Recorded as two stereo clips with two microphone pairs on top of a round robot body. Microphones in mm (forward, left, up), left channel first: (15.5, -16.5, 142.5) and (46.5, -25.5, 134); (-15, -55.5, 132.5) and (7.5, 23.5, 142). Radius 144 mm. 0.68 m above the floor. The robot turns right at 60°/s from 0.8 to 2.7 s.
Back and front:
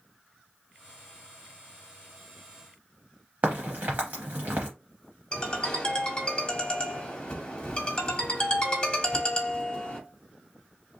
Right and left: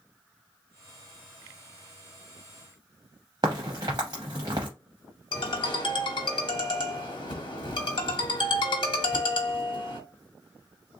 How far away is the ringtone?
About 1.3 m.